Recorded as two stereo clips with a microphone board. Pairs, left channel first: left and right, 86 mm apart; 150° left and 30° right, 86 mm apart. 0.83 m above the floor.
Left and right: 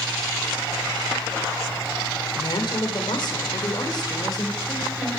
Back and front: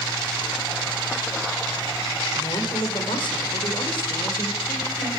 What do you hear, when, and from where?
2.3 s a woman speaking: 120° left, 3 m; by 5.1 s 135° left, 4 m